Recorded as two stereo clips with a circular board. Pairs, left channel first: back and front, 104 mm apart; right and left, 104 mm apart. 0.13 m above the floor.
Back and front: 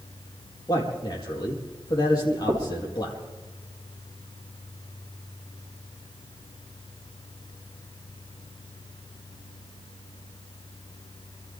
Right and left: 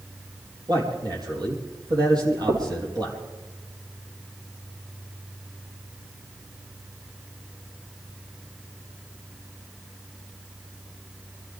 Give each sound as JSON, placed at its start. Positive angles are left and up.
{"t": 0.7, "sound": "a man speaking", "azimuth_deg": 135, "distance_m": 4.5}
{"t": 2.5, "sound": "knocking", "azimuth_deg": 45, "distance_m": 3.5}